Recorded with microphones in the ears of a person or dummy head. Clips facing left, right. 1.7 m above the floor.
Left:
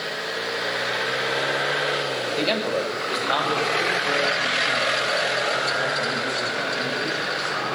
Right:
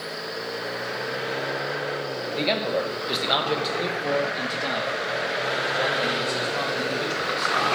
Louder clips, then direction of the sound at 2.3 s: Even; 15° left (ahead or behind).